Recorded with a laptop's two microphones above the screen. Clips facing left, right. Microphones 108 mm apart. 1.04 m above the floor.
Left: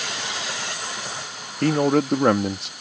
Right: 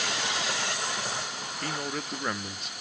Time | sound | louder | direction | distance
1.6 | a man speaking | left 17 dB | 70° left (ahead or behind) | ?